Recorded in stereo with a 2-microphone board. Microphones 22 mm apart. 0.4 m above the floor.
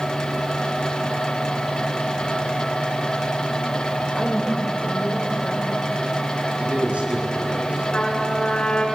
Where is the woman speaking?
5° right (ahead or behind), 1.5 m.